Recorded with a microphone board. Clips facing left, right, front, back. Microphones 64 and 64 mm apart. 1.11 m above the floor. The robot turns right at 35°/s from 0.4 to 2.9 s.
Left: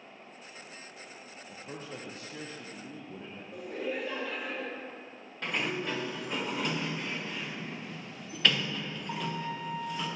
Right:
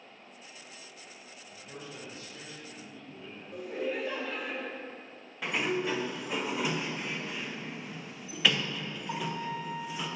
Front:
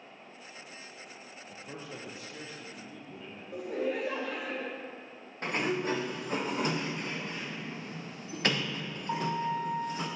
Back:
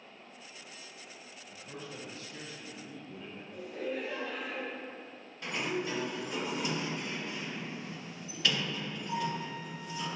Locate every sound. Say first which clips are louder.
1.5 s a man speaking: left 3 dB, front 1 dB; 50° left, 0.8 m; by 3.4 s 100° left, 0.8 m
3.5 s laughter: right 2 dB, front 5 dB; 5° right, 0.7 m
5.4 s a sliding door: right 2 dB, front 4 dB; 10° right, 0.8 m